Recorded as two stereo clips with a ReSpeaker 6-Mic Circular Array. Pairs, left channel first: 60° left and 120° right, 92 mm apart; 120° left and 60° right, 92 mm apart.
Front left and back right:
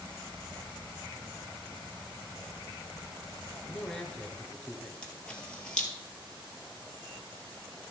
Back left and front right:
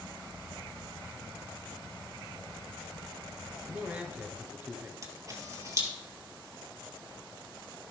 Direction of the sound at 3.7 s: 10° right.